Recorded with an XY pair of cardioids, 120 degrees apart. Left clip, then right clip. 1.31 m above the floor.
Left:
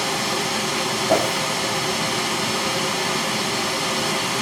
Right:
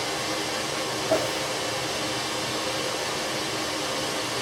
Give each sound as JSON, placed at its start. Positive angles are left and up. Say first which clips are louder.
{"t": 0.0, "sound": "running water", "louder": "left 5 dB", "azimuth_deg": 65, "distance_m": 1.3}
{"t": 1.1, "sound": "a whoosh", "louder": "left 5 dB", "azimuth_deg": 45, "distance_m": 0.6}